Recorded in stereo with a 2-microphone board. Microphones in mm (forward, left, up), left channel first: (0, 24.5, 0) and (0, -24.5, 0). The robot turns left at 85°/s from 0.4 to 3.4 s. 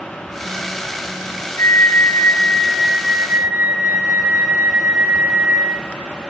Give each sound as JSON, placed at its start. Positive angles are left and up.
{"t": 1.6, "sound": "a flute", "azimuth_deg": 100, "distance_m": 3.5}